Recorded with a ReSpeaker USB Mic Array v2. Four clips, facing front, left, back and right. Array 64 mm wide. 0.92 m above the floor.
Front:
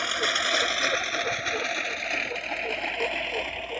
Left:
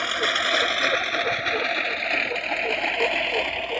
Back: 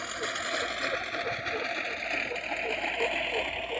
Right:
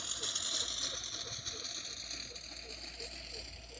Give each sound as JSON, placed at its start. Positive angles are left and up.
{"t": 0.0, "sound": "a lawn mower", "azimuth_deg": 65}